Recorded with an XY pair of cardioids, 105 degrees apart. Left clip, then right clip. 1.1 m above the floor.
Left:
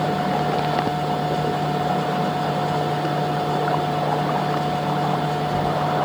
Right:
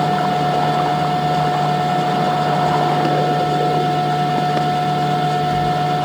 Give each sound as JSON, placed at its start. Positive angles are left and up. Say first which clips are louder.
{"t": 0.0, "sound": "a machine running", "louder": "right 5 dB", "azimuth_deg": -40, "distance_m": 0.8}